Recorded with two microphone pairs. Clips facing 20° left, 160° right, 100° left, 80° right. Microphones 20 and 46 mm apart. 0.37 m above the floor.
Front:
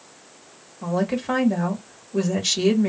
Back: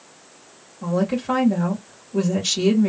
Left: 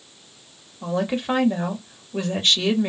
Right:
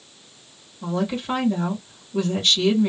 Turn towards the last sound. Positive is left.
turn(degrees=75)